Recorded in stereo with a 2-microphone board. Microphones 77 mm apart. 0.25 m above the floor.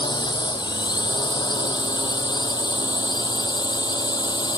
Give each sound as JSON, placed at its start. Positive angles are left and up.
{"t": 0.0, "sound": "a drone", "side_deg": 75}